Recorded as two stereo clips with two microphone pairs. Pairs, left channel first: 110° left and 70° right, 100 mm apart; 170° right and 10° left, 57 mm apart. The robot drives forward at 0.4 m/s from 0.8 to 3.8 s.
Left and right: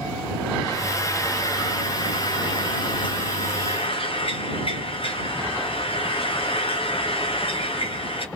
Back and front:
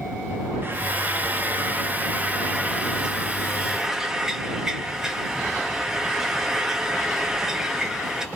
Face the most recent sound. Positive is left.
turn(degrees=90)